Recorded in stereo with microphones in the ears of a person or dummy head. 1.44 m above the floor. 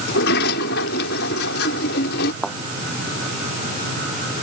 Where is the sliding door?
60° left (ahead or behind).